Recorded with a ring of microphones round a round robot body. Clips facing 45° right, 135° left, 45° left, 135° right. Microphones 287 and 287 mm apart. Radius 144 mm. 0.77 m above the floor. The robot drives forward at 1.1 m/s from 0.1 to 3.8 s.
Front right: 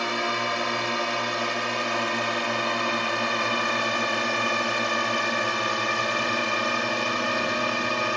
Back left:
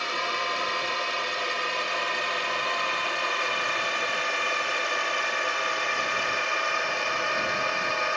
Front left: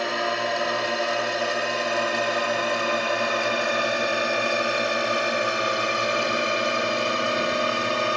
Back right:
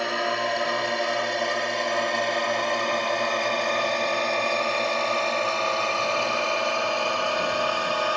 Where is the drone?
45° right; by 8.2 s 10° right.